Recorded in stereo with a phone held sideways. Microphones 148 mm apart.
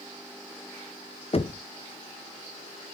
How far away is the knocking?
About 0.6 m.